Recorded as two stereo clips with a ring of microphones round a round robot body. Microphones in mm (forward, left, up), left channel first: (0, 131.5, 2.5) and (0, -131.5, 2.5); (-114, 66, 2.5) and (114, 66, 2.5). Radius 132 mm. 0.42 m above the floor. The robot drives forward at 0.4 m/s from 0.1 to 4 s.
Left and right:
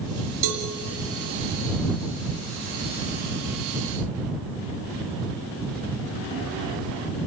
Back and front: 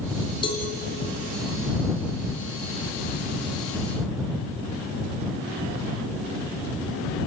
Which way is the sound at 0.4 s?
105° right.